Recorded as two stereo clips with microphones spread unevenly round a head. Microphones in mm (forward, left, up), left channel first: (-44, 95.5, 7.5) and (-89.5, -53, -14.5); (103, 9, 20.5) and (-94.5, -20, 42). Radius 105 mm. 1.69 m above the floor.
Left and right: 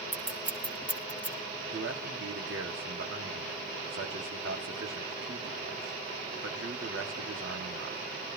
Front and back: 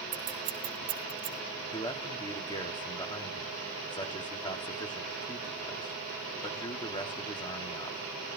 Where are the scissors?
150° left, 2 m.